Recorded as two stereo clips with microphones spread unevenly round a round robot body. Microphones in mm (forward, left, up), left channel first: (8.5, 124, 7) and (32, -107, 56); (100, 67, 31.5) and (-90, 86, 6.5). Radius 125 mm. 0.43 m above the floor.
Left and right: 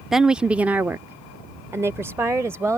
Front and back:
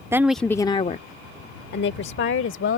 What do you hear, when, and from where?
0.1 s a woman speaking: 155° left; by 2.8 s straight ahead